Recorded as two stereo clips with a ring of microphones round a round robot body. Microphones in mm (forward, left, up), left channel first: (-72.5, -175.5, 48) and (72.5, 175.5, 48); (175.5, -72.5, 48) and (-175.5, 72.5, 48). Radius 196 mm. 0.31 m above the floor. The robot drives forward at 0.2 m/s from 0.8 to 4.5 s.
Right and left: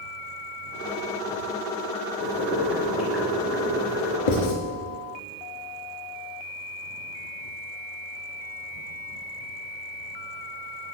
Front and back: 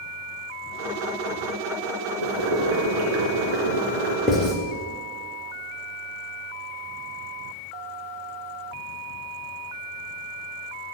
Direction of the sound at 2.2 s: 155° left.